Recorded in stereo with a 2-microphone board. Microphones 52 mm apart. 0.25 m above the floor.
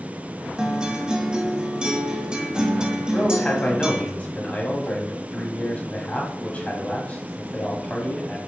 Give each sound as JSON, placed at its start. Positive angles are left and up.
{"t": 0.6, "sound": "a guitar", "side_deg": -15, "distance_m": 0.7}
{"t": 3.1, "sound": "a man speaking", "side_deg": 30, "distance_m": 1.2}